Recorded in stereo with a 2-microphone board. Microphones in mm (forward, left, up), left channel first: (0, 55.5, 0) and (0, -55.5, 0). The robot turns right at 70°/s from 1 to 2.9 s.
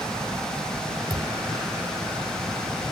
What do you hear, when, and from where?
1.1 s a thud: 45° right (ahead or behind), 2.0 m; by 1.3 s 30° right (ahead or behind), 2.0 m